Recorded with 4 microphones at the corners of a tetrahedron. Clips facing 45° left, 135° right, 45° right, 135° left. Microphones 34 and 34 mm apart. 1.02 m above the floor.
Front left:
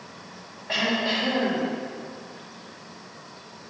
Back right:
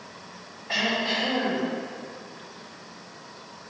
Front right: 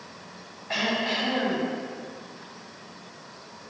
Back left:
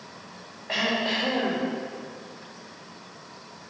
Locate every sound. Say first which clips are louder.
0.7 s throat clearing: front left 1 dB, back left 1 dB; 120° left, 3 m